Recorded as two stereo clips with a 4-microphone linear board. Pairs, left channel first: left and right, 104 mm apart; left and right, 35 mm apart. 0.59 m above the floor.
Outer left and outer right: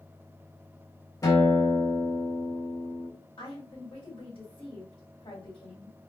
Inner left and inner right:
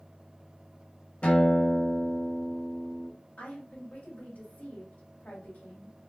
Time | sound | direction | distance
1.2 | a guitar | 35° left (ahead or behind) | 2 m
3.4 | a woman speaking | 60° left (ahead or behind) | 2 m